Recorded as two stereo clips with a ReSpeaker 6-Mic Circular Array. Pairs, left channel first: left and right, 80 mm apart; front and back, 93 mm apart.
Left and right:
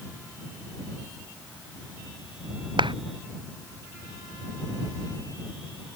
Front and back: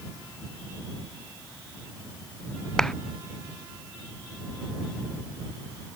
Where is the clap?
85° right.